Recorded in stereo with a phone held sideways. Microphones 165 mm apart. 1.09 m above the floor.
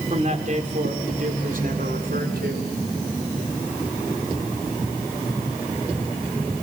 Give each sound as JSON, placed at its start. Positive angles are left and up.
{"t": 0.1, "sound": "a man speaking", "side_deg": -45, "distance_m": 3.5}